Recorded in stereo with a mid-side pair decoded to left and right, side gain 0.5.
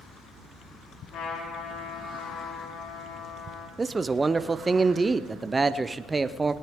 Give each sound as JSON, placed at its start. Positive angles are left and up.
{"t": 1.1, "sound": "a trumpet", "azimuth_deg": 70, "distance_m": 4.0}
{"t": 3.8, "sound": "a man speaking", "azimuth_deg": -25, "distance_m": 0.6}